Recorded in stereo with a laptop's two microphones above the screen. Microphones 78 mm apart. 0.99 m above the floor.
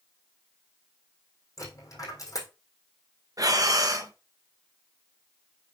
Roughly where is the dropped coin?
Left.